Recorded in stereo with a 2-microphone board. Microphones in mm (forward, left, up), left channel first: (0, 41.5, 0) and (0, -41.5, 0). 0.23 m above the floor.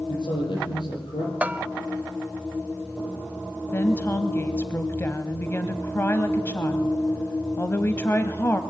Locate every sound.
0.1 s a man speaking: 65° left (ahead or behind), 7.5 m
1.4 s a bell: 20° right (ahead or behind), 0.7 m
3.7 s a woman speaking: 30° left (ahead or behind), 1.1 m